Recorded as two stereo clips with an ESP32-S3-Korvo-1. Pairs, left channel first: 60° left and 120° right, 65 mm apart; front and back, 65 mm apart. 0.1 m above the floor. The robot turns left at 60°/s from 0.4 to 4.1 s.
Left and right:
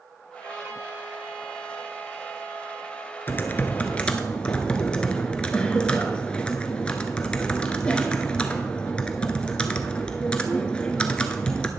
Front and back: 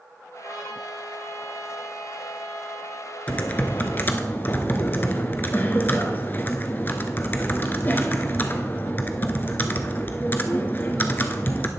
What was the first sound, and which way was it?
A trumpet, 150° right.